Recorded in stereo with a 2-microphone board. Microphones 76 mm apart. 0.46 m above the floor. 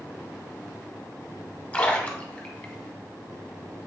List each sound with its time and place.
1.7 s a splash: 20° left (ahead or behind), 0.8 m